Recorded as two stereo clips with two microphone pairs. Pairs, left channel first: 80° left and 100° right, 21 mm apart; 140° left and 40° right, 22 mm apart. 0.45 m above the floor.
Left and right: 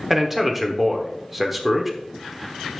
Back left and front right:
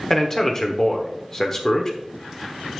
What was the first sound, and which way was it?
A man speaking, 175° right.